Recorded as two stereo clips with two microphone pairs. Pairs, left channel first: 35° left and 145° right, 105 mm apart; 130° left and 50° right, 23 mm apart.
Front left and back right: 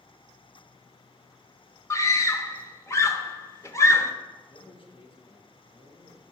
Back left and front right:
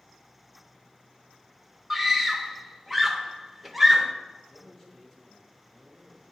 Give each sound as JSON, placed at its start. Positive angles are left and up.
{"t": 1.9, "sound": "a scream", "azimuth_deg": 40, "distance_m": 0.8}
{"t": 4.4, "sound": "a man speaking", "azimuth_deg": 55, "distance_m": 1.7}